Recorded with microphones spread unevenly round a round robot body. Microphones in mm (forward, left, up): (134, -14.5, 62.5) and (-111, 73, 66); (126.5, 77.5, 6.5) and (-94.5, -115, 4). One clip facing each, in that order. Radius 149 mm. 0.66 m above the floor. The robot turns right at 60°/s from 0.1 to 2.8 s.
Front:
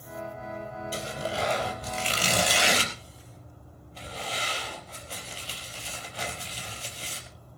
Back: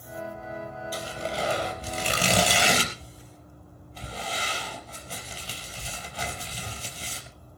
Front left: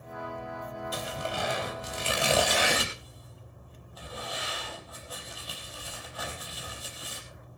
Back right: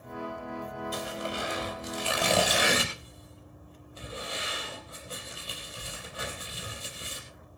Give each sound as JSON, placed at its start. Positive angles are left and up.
{"t": 0.9, "sound": "tearing paper", "azimuth_deg": 45, "distance_m": 5.0}